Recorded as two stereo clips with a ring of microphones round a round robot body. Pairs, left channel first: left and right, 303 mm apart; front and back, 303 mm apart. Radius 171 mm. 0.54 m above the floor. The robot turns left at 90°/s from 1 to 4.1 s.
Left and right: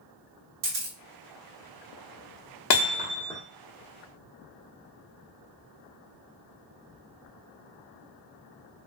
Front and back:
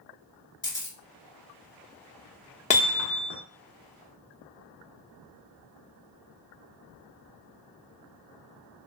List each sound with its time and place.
0.6 s a camera shutter: 80° right, 1.2 m
2.7 s hammering: 70° left, 0.8 m; by 3.4 s 5° left, 0.8 m